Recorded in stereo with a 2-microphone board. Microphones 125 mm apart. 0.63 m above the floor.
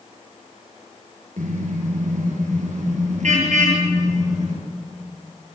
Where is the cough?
I don't hear a cough.